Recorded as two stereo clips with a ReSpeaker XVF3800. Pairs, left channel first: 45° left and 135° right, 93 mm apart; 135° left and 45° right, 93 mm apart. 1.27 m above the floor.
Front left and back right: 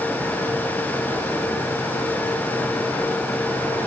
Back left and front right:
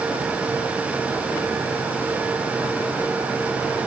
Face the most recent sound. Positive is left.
No sound to turn to.